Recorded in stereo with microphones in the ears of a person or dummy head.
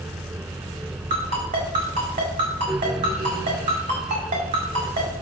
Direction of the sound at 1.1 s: 35° right (ahead or behind).